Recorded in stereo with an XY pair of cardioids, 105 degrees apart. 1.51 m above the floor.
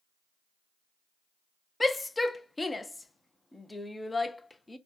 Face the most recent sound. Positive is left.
turn(degrees=15)